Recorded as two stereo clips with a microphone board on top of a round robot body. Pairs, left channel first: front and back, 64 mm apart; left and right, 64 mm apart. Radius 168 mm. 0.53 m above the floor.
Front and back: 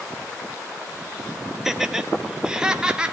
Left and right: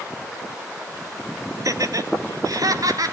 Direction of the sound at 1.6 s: 95° right.